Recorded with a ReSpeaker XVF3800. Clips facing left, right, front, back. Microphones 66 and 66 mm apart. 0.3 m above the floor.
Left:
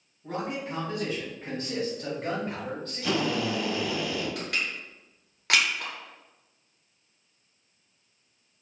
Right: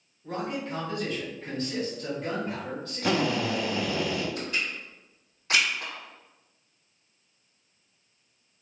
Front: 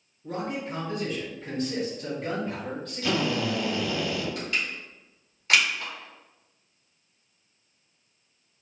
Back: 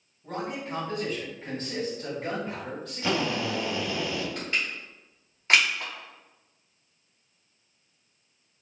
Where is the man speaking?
160° left, 1.9 m; by 4.0 s 65° left, 1.4 m.